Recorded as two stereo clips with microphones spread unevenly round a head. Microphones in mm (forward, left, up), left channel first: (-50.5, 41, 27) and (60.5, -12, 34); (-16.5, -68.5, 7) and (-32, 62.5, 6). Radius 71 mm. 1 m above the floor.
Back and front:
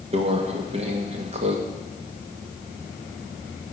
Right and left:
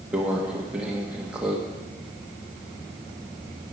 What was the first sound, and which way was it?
A microwave, 15° left.